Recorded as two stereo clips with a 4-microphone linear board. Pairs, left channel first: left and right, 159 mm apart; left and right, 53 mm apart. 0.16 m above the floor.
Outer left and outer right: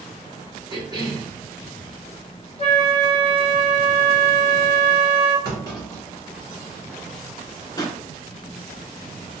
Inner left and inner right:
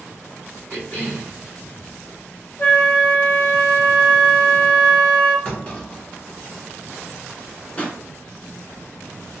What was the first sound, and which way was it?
A cough, 30° left (ahead or behind).